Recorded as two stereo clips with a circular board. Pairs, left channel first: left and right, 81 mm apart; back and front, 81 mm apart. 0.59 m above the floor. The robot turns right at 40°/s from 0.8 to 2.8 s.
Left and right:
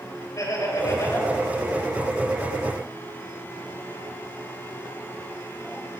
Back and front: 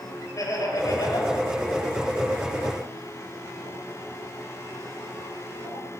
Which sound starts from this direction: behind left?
Laughter, at 0.4 s.